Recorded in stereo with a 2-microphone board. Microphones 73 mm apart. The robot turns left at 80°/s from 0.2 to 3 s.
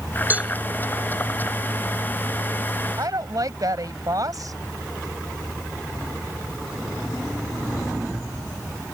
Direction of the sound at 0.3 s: 25° right (ahead or behind).